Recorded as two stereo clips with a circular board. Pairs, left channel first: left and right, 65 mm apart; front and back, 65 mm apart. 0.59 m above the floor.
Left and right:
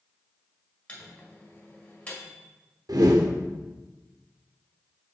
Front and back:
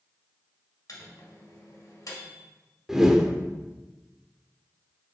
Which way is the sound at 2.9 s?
100° right.